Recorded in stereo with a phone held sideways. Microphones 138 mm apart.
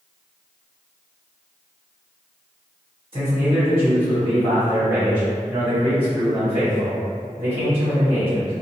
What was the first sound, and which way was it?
A man speaking, 45° right (ahead or behind).